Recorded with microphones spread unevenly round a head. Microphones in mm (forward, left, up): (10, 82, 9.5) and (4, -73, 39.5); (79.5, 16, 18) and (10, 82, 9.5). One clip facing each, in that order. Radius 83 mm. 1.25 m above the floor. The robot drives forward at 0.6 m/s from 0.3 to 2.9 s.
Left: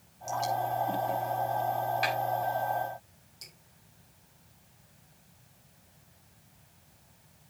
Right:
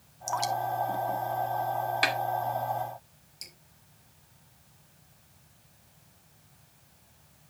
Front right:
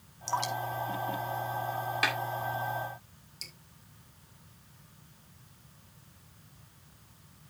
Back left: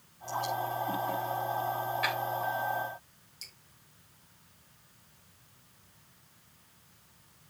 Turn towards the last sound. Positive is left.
turn(degrees=-25)